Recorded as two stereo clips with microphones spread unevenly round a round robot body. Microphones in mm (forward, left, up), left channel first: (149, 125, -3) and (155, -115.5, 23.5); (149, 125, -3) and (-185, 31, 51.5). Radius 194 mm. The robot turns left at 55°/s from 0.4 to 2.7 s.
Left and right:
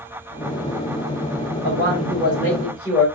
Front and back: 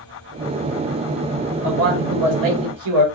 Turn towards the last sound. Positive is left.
turn(degrees=170)